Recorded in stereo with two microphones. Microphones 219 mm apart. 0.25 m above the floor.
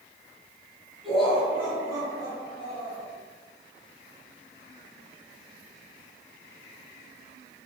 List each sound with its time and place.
1.0 s laughter: centre (ahead or behind), 3.5 m; by 3.1 s 30° right (ahead or behind), 5.5 m